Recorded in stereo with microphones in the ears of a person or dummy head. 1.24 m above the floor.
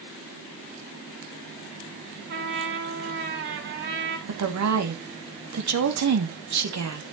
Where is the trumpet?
55° right (ahead or behind), 4.5 m.